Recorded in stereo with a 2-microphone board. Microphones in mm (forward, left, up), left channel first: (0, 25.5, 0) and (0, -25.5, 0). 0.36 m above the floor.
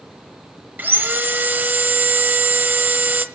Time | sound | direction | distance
0.8 | sawing | 40° right (ahead or behind) | 1.5 m